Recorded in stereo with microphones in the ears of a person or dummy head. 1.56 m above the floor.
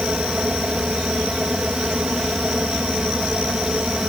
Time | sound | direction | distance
0.0 | a fan | 5° right (ahead or behind) | ?